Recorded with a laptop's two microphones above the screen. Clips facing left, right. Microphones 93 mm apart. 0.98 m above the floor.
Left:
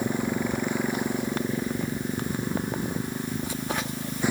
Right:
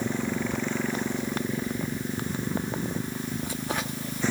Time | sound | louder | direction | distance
0.0 | a motorcycle | left 2 dB | 10° left (ahead or behind) | ?